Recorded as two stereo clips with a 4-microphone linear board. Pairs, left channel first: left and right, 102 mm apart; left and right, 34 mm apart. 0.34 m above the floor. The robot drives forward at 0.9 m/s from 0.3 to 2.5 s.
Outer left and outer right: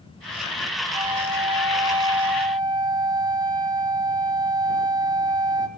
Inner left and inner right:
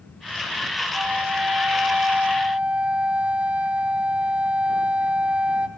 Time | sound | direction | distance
0.9 | a flute | 45° right (ahead or behind) | 1.0 m